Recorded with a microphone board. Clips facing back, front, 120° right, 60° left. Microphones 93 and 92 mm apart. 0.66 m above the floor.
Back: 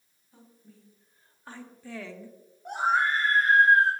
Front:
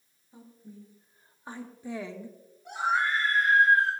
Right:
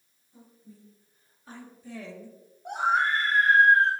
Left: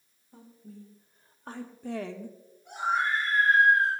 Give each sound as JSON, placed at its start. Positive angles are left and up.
{"t": 0.3, "sound": "a woman speaking", "azimuth_deg": 75, "distance_m": 4.0}
{"t": 2.6, "sound": "a scream", "azimuth_deg": -135, "distance_m": 4.0}